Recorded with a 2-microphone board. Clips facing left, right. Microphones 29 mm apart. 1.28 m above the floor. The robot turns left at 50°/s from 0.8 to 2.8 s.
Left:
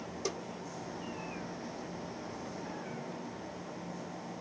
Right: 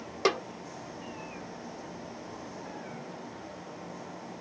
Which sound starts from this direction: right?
A snare drum, at 0.2 s.